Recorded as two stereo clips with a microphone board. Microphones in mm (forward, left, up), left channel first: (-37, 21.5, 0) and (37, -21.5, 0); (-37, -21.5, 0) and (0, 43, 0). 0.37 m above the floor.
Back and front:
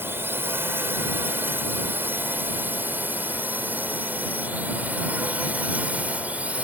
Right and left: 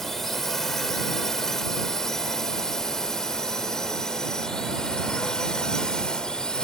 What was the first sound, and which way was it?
A drone, 40° right.